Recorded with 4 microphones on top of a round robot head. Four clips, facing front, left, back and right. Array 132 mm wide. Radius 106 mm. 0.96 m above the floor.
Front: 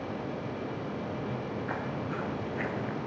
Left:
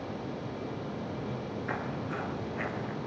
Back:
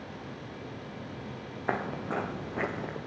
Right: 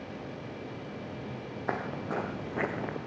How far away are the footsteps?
About 1.6 m.